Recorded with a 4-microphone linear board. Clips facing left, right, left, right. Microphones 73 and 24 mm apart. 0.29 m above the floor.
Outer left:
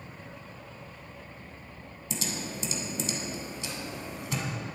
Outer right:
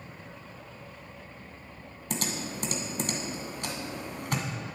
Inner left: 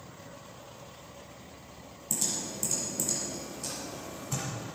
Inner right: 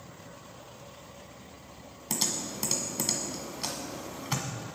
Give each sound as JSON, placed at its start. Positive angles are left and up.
{"t": 2.1, "sound": "typing on a keyboard", "side_deg": -65, "distance_m": 1.7}